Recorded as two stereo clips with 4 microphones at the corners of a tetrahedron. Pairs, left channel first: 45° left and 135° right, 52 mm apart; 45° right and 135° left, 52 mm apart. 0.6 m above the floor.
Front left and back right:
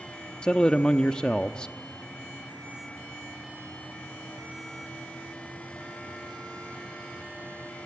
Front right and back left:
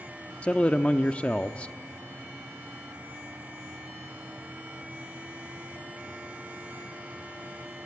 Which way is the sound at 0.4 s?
10° right.